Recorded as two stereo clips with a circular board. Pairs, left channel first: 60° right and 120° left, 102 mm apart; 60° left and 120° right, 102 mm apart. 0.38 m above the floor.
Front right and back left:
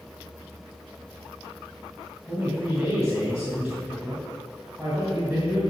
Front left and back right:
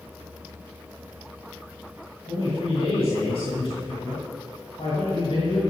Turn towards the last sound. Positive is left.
turn(degrees=45)